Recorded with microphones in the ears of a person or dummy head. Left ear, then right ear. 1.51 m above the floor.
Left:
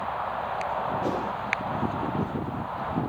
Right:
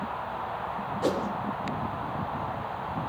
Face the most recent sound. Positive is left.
turn(degrees=-50)  # may be behind; listen again after turning